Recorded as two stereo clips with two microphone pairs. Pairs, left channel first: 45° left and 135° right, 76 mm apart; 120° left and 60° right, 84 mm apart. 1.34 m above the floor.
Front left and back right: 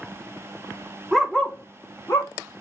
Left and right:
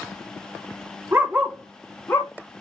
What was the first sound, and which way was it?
A dog barking, 55° right.